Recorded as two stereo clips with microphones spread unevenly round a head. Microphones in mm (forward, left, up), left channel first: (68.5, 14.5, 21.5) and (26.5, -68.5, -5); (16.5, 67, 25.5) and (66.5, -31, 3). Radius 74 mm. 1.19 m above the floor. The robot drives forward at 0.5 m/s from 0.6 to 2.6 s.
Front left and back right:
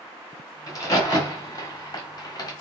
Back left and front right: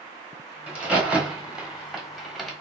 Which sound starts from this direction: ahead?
A crack, at 0.7 s.